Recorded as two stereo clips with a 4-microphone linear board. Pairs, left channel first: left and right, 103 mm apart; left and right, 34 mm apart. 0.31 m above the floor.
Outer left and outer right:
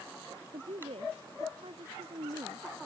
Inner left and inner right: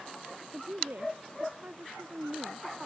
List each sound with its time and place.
0.5 s a woman speaking: 65° right (ahead or behind); by 2.7 s 60° right (ahead or behind)